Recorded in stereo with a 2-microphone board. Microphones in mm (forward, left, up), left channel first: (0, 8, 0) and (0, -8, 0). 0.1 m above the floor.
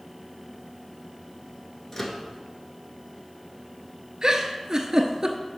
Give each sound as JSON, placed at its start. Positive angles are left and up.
{"t": 1.9, "sound": "a microwave", "side_deg": 30, "distance_m": 1.0}
{"t": 4.2, "sound": "a giggle", "side_deg": -40, "distance_m": 0.7}